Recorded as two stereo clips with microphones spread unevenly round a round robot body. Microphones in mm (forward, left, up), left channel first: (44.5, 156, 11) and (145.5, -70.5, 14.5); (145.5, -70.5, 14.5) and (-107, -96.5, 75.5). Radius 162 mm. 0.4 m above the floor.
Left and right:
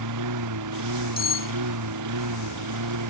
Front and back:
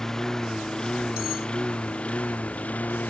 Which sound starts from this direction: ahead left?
Cutlery clinking, at 1.2 s.